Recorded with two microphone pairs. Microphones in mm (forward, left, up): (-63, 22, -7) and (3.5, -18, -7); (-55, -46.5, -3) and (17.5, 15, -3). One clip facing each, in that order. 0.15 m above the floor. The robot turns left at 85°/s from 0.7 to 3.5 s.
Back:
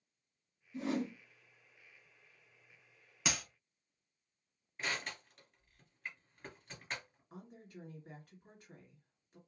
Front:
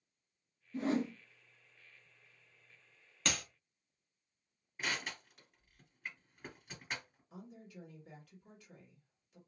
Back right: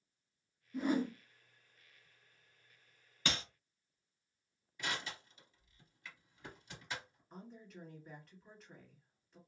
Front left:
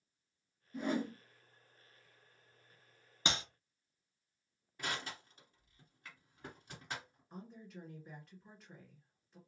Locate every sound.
0.7 s a whoosh: 50° right, 1.1 m; by 1.1 s 85° right, 1.1 m
3.2 s a clap: 80° left, 0.8 m; by 3.4 s 65° left, 0.8 m
4.8 s crushing: 55° left, 1.9 m
7.3 s a woman speaking: 130° left, 1.8 m